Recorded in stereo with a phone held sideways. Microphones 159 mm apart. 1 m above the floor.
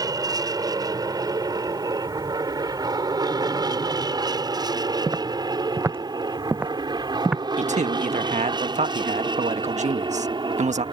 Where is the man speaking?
50° right (ahead or behind).